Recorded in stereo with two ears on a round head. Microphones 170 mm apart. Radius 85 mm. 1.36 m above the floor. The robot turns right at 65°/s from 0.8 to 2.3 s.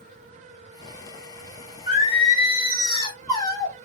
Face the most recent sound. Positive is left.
turn(degrees=20)  # may be behind; listen again after turning